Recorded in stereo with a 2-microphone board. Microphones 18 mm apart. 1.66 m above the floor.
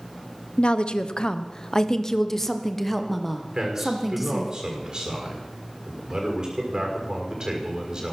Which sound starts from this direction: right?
A man speaking, at 3.5 s.